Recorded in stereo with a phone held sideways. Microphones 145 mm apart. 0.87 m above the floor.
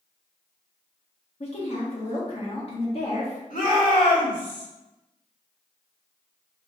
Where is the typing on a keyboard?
I don't hear typing on a keyboard.